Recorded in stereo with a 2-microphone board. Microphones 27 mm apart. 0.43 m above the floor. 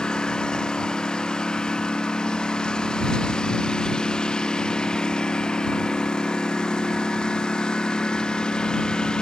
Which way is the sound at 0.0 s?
30° left (ahead or behind).